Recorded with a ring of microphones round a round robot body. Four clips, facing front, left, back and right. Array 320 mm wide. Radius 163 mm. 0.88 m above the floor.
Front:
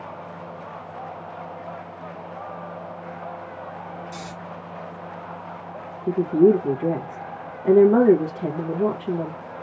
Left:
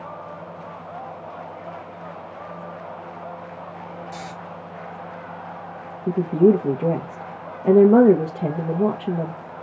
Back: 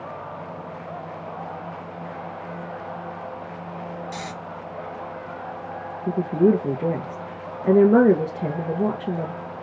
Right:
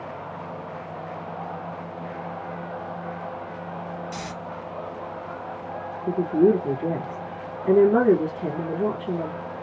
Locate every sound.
4.1 s snoring: 125° right, 1.5 m
6.1 s a woman speaking: 120° left, 1.2 m